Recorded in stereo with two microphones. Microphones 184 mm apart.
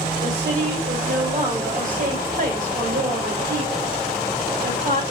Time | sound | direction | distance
0.2 | a woman speaking | 50° right (ahead or behind) | 2.5 m